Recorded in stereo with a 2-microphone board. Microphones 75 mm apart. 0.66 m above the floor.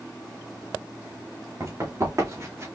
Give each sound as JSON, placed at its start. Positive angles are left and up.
{"t": 1.6, "sound": "running footsteps", "side_deg": -45, "distance_m": 3.0}